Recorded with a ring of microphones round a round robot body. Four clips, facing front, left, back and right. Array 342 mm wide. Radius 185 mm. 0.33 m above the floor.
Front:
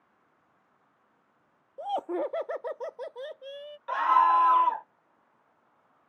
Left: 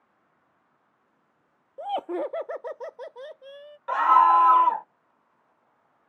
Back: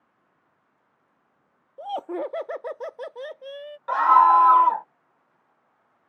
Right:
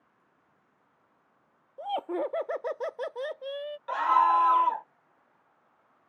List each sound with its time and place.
1.8 s laughter: 95° left; by 3.8 s 110° right
3.9 s a scream: 145° left